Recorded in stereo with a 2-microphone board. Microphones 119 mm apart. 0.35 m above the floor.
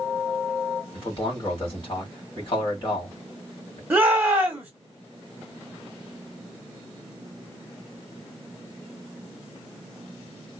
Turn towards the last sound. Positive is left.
turn(degrees=-10)  # may be behind; listen again after turning